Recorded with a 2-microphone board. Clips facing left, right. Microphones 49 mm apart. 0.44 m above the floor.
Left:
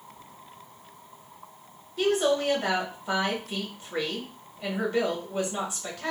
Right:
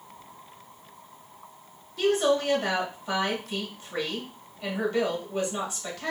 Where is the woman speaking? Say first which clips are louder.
Right 1 dB; 15° left (ahead or behind), 1.3 m.